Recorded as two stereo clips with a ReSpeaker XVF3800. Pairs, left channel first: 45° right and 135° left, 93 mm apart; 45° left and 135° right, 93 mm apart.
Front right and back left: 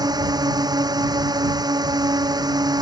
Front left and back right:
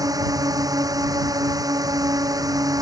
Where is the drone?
175° left.